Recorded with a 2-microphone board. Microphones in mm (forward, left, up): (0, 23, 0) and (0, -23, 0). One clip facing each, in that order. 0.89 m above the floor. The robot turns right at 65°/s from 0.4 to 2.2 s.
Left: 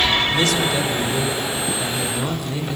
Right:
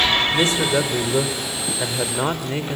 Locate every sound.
0.3 s a man speaking: 155° right, 2.5 m; by 2.8 s 40° right, 2.5 m